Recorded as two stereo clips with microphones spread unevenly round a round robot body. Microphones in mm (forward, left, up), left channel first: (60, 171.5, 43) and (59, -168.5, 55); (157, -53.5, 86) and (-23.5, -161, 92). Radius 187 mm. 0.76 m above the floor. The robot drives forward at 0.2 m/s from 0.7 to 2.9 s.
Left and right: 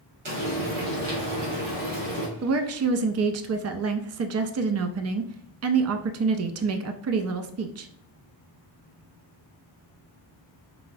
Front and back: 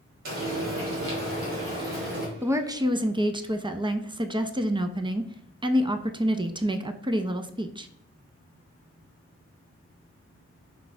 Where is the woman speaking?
70° right, 0.6 m; by 7.9 s 85° right, 0.6 m.